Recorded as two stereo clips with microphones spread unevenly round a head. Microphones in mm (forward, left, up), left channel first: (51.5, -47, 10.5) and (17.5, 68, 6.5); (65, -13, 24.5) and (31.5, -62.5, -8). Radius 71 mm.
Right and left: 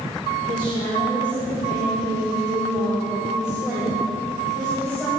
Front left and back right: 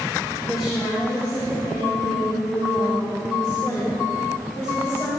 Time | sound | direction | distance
0.4 | a woman speaking | 115° left | 2 m